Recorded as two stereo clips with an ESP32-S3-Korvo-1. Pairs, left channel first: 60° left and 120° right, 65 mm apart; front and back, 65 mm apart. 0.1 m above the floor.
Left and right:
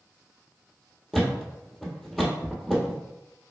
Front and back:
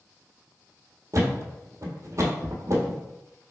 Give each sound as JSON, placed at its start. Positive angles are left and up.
{"t": 1.1, "sound": "a thud", "azimuth_deg": 145, "distance_m": 1.5}